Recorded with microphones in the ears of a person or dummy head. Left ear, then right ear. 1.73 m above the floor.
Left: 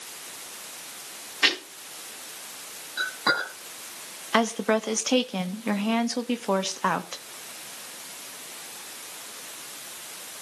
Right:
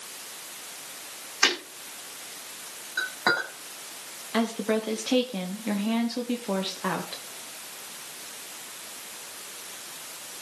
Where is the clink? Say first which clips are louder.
Even; 25° right (ahead or behind), 8.5 m.